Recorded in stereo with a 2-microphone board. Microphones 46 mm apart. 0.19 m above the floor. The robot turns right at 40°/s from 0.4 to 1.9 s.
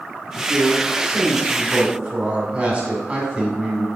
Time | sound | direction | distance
0.3 | a man speaking | 125° right | 1.8 m